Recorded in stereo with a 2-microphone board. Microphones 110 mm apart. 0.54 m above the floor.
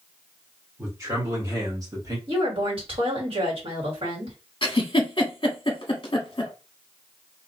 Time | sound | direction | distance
0.8 | a man speaking | 25° right (ahead or behind) | 1.8 m
2.3 | a woman speaking | 55° right (ahead or behind) | 1.8 m
4.6 | a giggle | 50° left (ahead or behind) | 0.8 m